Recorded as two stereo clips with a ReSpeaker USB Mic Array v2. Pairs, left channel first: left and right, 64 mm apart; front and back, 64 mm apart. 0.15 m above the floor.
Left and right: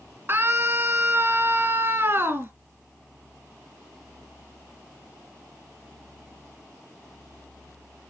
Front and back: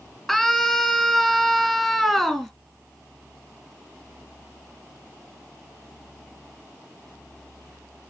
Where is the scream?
85° right, 1.8 m.